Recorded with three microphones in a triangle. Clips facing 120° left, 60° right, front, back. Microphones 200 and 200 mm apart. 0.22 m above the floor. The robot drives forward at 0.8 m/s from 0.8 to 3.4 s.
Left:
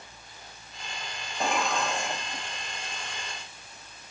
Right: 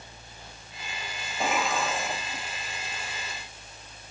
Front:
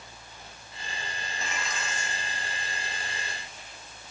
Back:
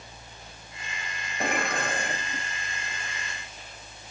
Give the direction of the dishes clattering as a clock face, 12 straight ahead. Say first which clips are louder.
Even, back 10 dB; 5 o'clock.